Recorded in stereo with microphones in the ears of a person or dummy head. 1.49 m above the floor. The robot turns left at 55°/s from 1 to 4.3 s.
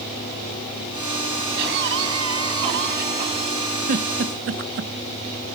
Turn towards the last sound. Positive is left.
turn(degrees=-60)  # may be behind; listen again after turning